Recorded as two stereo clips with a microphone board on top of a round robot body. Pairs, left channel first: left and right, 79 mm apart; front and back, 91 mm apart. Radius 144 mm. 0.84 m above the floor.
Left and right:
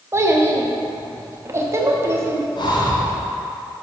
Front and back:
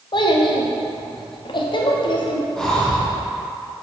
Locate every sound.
0.1 s a child speaking: 35° right, 1.1 m
2.6 s breathing: 80° left, 1.4 m